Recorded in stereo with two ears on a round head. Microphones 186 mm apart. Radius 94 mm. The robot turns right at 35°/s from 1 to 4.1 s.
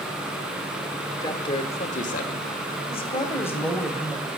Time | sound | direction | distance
1.2 | a man speaking | 25° left | 1.9 m
2.9 | a woman speaking | 145° left | 2.5 m